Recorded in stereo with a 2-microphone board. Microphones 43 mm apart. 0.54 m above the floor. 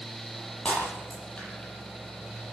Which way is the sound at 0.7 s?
25° left (ahead or behind).